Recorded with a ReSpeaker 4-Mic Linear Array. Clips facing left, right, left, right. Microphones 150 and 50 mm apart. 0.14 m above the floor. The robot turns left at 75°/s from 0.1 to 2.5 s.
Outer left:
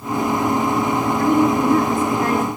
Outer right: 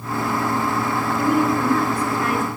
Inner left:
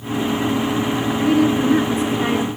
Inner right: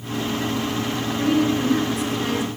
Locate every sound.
1.2 s a woman speaking: 165° right, 1.4 m; by 2.5 s 100° left, 1.4 m